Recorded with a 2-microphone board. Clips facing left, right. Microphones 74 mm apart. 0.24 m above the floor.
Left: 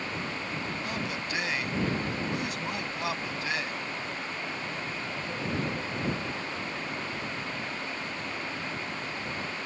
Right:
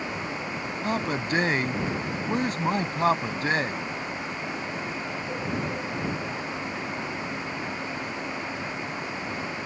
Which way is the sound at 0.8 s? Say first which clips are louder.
Right 6 dB; 45° right (ahead or behind).